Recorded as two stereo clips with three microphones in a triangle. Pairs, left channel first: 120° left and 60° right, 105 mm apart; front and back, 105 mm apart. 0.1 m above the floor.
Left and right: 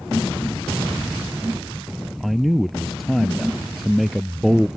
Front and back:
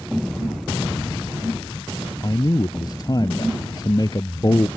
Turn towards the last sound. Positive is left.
turn(degrees=30)